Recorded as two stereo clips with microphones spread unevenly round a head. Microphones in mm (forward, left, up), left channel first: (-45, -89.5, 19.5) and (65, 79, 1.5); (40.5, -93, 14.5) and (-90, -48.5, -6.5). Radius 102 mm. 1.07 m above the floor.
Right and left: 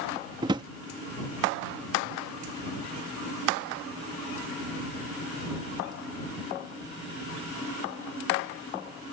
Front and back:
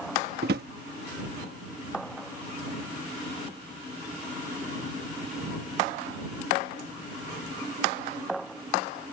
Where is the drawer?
130° left.